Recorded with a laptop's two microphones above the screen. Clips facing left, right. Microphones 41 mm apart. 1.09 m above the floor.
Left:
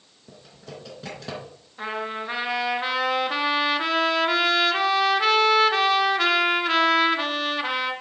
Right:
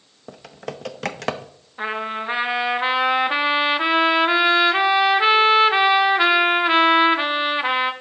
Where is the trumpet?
25° right (ahead or behind), 0.5 m.